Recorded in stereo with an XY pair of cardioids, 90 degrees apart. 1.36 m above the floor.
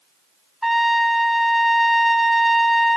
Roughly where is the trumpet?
Ahead.